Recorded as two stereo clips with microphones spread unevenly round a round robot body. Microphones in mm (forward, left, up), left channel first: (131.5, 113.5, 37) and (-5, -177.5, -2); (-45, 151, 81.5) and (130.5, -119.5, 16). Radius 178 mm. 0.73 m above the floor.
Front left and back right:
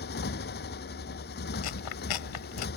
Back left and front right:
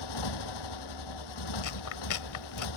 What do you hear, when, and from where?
0.0 s a motorcycle: 130° left
1.6 s chewing: 90° left